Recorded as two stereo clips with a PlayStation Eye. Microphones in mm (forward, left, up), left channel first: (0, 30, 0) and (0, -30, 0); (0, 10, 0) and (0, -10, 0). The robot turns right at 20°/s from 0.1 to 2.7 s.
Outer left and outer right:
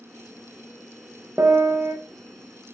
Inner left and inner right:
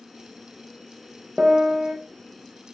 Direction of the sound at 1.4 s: 40° right (ahead or behind).